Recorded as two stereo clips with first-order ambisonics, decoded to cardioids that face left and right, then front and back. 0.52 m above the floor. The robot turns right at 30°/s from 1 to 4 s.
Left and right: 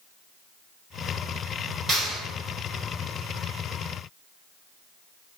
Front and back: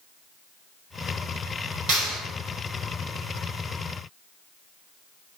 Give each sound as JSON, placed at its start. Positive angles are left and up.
{"t": 1.9, "sound": "a clap", "azimuth_deg": -160, "distance_m": 1.5}